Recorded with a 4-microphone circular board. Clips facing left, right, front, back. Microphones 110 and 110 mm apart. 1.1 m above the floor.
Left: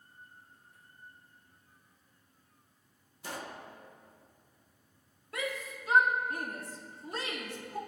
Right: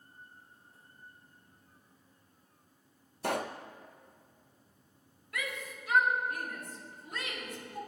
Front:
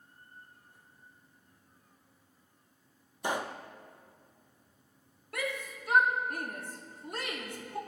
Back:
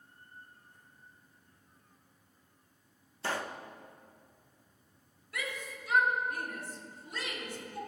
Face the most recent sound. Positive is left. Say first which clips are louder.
# left 3 dB, front 4 dB
turn(degrees=35)